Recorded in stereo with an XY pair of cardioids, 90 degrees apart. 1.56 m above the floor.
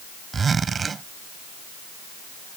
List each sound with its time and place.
0.3 s a zipper: 40° right